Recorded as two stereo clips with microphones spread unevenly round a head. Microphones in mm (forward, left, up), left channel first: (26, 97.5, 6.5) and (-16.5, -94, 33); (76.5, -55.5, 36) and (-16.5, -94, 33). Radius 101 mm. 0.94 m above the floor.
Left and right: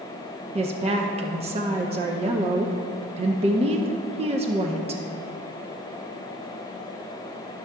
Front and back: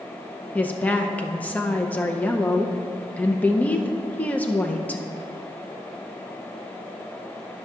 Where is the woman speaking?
50° right, 0.6 m.